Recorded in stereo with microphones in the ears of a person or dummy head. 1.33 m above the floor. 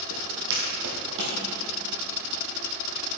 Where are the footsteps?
60° right (ahead or behind), 2.5 m; by 1.4 s 55° right (ahead or behind), 2.5 m.